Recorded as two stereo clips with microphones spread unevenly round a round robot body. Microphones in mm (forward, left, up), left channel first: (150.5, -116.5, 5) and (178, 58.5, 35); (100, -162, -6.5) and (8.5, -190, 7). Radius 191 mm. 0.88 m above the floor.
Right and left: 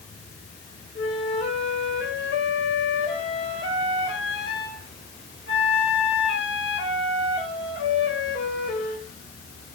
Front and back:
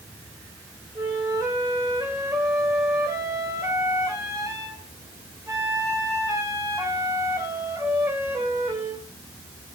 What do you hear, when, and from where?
0.9 s a flute: 105° right, 3.5 m